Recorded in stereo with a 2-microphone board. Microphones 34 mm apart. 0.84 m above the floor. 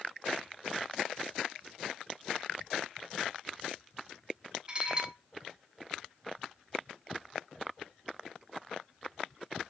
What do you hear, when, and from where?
4.7 s dishes clattering: 30° right (ahead or behind), 1.0 m